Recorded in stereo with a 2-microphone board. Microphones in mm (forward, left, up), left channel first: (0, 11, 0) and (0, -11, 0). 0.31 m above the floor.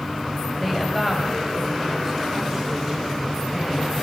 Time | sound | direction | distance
0.6 | a woman speaking | centre (ahead or behind) | 1.6 m